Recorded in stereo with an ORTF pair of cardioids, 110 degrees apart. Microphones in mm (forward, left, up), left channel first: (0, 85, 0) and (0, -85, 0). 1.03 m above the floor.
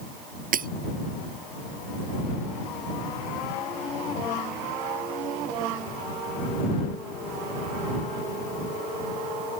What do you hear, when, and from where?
0.5 s breaking glass: 55° right